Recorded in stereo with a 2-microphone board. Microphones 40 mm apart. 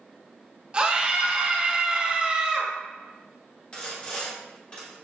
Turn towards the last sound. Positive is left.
turn(degrees=30)  # may be behind; listen again after turning